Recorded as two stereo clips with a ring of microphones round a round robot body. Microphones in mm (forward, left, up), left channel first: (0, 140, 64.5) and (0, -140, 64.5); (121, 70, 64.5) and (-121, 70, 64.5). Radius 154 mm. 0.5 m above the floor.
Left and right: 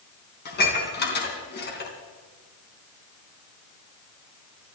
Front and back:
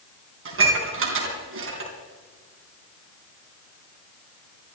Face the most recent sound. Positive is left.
turn(degrees=145)